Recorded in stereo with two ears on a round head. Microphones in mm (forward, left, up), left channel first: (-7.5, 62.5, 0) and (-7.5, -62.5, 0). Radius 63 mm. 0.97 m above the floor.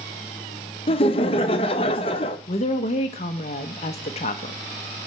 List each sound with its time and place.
0.9 s laughter: 40° left (ahead or behind), 0.7 m
2.5 s a woman speaking: 45° left (ahead or behind), 0.6 m